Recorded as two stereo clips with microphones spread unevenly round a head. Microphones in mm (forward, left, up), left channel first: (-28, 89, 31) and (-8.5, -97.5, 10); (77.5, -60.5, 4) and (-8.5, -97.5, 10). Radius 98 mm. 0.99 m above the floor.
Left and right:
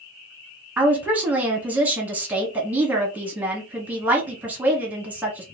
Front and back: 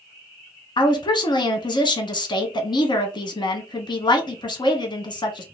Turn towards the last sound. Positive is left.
turn(degrees=-5)